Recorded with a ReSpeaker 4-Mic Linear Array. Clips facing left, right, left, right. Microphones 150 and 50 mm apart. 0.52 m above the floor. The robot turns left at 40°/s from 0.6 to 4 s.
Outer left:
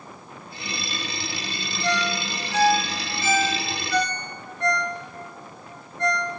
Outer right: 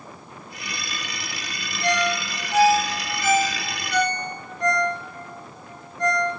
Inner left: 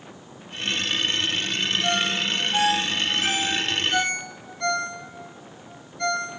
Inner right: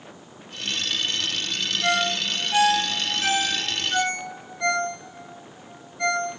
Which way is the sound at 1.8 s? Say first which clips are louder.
Outer right 3 dB, inner right 4 dB; 65° right (ahead or behind).